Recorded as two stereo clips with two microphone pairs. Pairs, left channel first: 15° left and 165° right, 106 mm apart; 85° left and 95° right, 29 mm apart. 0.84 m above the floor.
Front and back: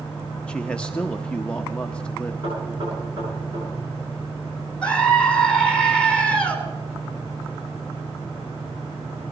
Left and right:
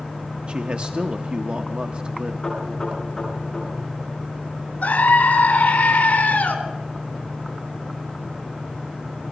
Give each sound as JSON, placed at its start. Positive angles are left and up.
{"t": 0.5, "sound": "a man speaking", "azimuth_deg": -60, "distance_m": 0.7}
{"t": 2.4, "sound": "knocking", "azimuth_deg": 160, "distance_m": 10.0}
{"t": 4.8, "sound": "a scream", "azimuth_deg": 95, "distance_m": 3.0}